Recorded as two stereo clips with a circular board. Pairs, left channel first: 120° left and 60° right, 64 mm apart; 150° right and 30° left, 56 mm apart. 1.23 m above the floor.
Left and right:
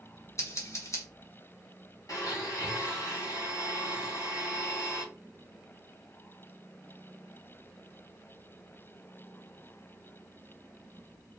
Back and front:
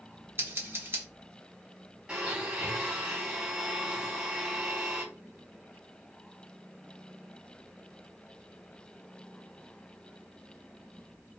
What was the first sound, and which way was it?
Scissors, 75° left.